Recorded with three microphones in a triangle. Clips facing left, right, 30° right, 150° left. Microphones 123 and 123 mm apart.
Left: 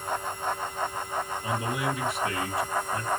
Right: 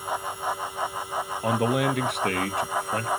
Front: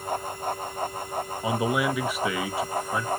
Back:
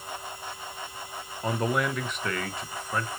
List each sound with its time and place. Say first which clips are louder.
1.4 s a man speaking: right 9 dB, front 1 dB; 115° right, 0.9 m